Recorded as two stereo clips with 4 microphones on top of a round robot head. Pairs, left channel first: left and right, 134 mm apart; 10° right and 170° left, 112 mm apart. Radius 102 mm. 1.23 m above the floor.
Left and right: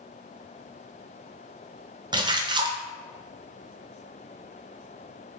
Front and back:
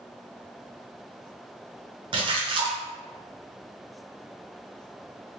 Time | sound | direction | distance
2.1 | a splash | 150° right | 0.5 m